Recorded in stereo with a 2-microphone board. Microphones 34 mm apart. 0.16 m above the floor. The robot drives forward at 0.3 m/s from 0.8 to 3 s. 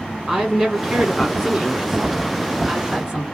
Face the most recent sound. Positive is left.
turn(degrees=-15)  # may be behind; listen again after turning